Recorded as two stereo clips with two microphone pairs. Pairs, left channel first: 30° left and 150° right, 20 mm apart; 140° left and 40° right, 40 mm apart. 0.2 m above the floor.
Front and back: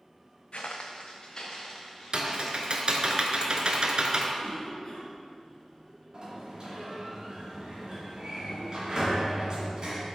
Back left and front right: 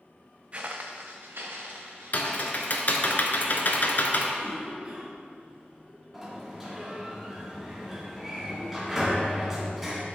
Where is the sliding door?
120° right, 1.8 m.